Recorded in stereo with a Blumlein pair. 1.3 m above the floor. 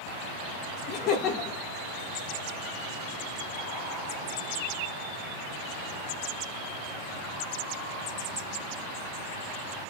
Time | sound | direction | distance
0.9 | laughter | 35° left | 1.0 m